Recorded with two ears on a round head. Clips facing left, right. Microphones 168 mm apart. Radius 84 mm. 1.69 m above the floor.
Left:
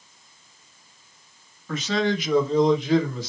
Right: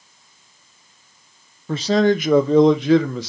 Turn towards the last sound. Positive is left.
turn(degrees=-55)  # may be behind; listen again after turning